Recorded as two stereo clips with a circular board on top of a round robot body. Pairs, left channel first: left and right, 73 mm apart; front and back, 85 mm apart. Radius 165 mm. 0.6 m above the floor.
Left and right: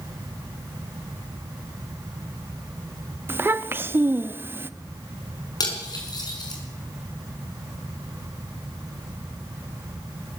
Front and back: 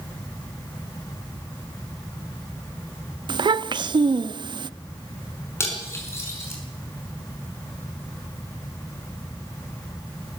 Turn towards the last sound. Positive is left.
turn(degrees=60)